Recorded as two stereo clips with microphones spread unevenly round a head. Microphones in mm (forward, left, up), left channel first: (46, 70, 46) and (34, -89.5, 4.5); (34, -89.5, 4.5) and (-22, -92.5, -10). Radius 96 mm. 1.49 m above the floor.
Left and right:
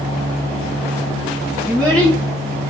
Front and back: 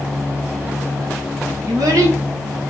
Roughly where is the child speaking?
Behind.